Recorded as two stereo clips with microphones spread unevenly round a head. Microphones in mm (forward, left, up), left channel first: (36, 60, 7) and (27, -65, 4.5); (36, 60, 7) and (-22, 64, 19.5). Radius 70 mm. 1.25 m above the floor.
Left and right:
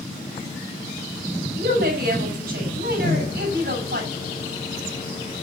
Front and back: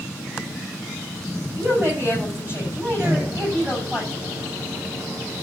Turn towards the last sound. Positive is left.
turn(degrees=135)